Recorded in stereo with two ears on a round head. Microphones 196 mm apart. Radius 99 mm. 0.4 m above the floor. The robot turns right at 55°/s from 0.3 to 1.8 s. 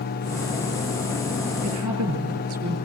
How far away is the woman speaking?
About 7.5 m.